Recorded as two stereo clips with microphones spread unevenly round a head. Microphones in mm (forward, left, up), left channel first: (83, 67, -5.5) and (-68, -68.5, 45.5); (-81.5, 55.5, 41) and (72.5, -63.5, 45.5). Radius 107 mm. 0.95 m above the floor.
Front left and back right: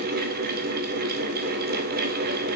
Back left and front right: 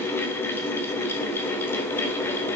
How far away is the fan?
About 0.8 m.